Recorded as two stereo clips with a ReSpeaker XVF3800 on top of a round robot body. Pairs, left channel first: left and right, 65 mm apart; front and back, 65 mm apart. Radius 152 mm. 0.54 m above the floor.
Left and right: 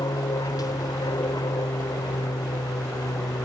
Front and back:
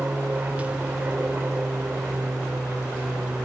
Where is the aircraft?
110° left; by 3.5 s 105° left.